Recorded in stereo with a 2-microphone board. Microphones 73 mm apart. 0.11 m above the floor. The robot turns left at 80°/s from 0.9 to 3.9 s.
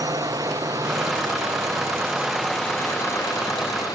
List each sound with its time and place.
0.0 s a drone: 65° right (ahead or behind); by 4.0 s 65° left (ahead or behind)